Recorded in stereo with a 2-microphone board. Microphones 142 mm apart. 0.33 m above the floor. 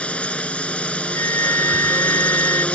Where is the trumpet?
75° right (ahead or behind).